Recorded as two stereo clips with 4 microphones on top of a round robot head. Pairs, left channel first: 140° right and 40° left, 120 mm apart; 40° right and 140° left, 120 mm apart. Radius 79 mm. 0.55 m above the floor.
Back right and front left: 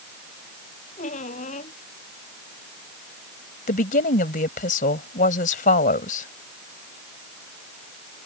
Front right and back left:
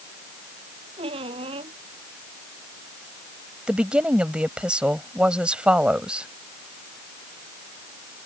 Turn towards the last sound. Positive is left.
turn(degrees=-135)